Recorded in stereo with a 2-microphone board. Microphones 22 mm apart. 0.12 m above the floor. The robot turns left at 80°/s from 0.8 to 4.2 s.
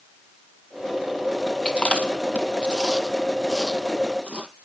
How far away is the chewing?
About 1.2 m.